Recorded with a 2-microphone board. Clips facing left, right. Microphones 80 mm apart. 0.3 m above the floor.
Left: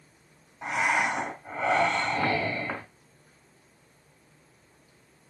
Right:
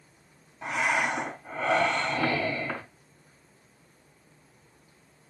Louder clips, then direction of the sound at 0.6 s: Left 1 dB; 15° left (ahead or behind).